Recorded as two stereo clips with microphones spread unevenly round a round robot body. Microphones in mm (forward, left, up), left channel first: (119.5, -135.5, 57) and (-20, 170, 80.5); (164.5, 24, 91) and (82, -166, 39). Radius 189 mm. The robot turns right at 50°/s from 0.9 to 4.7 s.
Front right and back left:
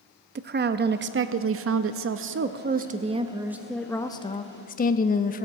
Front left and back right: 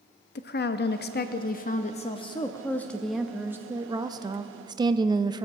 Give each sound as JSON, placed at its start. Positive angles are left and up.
{"t": 0.3, "sound": "a woman speaking", "azimuth_deg": 70, "distance_m": 0.6}